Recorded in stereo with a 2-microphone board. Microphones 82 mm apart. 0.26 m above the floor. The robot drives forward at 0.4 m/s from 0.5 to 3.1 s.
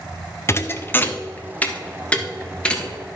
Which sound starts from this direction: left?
A thud, at 0.5 s.